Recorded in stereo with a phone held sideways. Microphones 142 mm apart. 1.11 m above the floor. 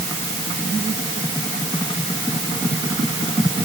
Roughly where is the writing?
No writing in this recording.